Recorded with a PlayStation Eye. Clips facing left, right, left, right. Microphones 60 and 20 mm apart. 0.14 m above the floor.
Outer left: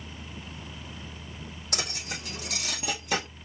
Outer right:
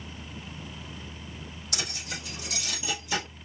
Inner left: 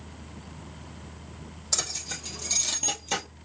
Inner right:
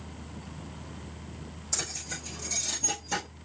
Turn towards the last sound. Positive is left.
turn(degrees=60)  # may be behind; listen again after turning